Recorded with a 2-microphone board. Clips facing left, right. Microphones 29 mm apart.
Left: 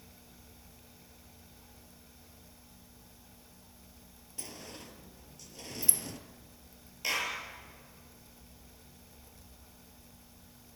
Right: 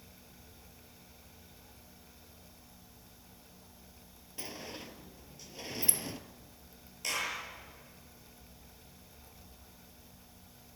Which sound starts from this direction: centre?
A clap, at 7.0 s.